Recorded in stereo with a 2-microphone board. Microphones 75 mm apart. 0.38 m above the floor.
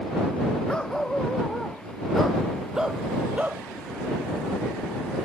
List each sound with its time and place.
0.7 s a dog barking: 10° left (ahead or behind); by 3.6 s 20° right (ahead or behind)